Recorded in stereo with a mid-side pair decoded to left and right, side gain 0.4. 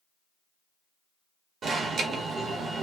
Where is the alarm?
65° right, 1.1 m.